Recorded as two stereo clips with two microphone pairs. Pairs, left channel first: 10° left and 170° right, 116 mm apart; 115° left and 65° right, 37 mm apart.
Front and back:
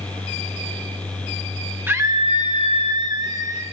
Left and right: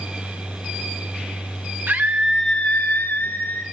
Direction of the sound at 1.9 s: 95° right.